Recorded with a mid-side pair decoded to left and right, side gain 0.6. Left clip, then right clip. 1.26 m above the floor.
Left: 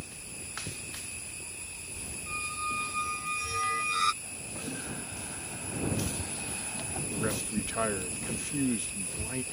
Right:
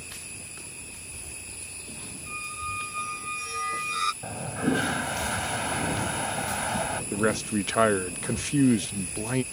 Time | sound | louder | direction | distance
2.3 | a squeak | even | straight ahead | ?
4.2 | a toilet flushing | right 11 dB | 65° right | ?
7.1 | a man speaking | right 6 dB | 45° right | ?